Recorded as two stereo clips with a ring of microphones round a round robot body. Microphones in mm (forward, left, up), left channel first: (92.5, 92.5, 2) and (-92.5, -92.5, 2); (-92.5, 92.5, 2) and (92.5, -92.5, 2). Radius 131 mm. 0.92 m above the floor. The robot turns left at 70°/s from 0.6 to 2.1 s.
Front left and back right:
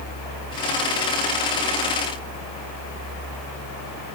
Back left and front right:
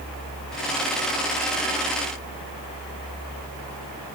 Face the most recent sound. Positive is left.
No sound to turn to.